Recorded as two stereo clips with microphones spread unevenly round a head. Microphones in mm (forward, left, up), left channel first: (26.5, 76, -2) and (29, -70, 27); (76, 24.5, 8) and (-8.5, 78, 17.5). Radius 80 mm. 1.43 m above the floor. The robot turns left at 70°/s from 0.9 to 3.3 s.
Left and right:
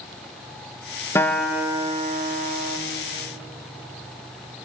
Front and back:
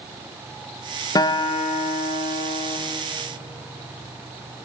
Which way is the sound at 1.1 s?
20° left.